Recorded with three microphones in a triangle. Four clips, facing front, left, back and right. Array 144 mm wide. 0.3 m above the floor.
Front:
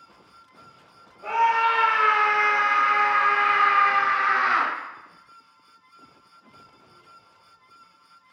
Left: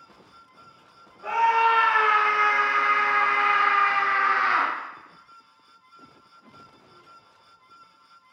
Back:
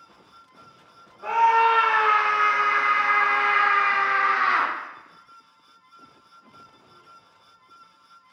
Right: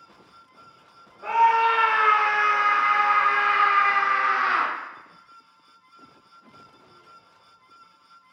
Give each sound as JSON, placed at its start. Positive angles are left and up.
{"t": 1.2, "sound": "a scream", "azimuth_deg": -135, "distance_m": 1.7}